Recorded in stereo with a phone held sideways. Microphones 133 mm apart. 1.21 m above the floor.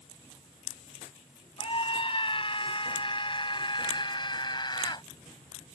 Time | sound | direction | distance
1.6 | a scream | 40° left (ahead or behind) | ?